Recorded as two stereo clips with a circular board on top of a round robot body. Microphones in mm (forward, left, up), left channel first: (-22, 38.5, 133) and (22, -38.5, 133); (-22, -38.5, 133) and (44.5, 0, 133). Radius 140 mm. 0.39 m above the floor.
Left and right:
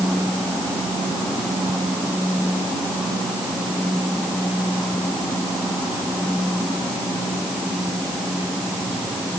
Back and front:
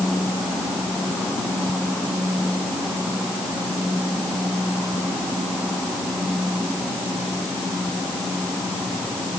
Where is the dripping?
No dripping in this recording.